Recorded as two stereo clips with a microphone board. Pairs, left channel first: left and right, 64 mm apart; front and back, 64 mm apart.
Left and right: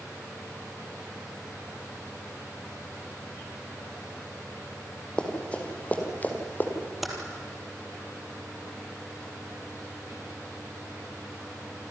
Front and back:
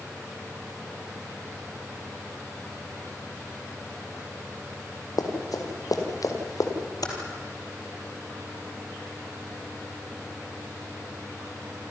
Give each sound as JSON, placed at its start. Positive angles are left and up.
{"t": 5.2, "sound": "running footsteps", "azimuth_deg": 15, "distance_m": 4.5}
{"t": 7.0, "sound": "typing on a keyboard", "azimuth_deg": -5, "distance_m": 3.5}